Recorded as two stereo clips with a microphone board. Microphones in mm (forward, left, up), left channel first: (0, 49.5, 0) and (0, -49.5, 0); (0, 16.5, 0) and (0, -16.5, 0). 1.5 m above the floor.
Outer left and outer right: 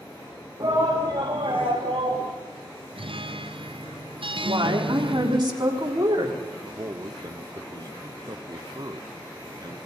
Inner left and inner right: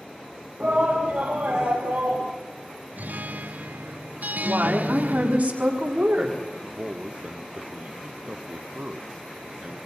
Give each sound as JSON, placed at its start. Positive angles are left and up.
{"t": 0.6, "sound": "a shout", "side_deg": -40, "distance_m": 2.5}
{"t": 3.0, "sound": "a guitar", "side_deg": -60, "distance_m": 0.5}
{"t": 4.4, "sound": "a woman speaking", "side_deg": -45, "distance_m": 4.0}
{"t": 6.6, "sound": "a man speaking", "side_deg": -40, "distance_m": 0.7}